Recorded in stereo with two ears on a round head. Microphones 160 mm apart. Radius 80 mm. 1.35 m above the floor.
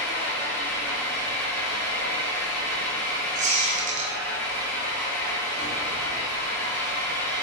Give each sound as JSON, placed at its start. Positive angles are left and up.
{"t": 0.0, "sound": "an engine running", "side_deg": 15, "distance_m": 0.8}
{"t": 3.4, "sound": "a squeak", "side_deg": -45, "distance_m": 0.8}